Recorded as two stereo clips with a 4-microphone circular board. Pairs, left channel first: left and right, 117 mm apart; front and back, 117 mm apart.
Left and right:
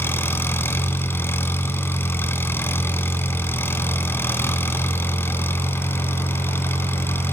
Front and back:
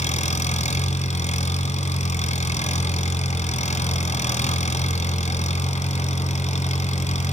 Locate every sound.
0.0 s an engine running: 15° left, 2 m